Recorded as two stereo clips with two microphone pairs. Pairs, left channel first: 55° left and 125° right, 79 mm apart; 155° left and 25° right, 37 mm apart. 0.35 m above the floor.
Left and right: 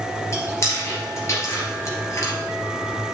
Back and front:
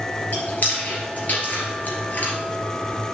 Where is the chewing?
110° left, 2 m.